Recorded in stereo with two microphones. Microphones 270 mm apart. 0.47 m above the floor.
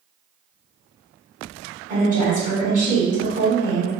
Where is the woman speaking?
25° right (ahead or behind), 1.5 m.